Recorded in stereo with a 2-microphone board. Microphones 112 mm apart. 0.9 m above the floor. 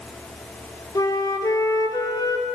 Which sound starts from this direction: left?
A flute, at 0.9 s.